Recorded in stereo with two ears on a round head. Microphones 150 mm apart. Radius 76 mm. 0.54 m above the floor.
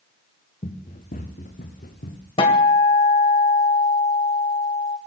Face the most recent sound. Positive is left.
turn(degrees=30)  # may be behind; listen again after turning